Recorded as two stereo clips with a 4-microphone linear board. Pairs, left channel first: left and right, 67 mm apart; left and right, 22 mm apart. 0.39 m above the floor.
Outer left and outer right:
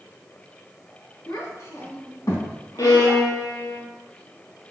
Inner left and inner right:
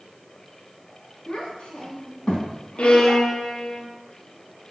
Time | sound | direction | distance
1.3 | a child speaking | 65° left (ahead or behind) | 2.5 m
2.8 | a violin | 80° left | 2 m